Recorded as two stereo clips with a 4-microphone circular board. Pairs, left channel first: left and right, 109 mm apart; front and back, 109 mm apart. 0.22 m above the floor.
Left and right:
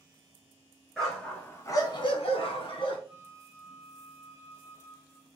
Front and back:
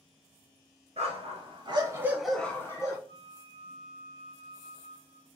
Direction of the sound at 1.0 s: Straight behind.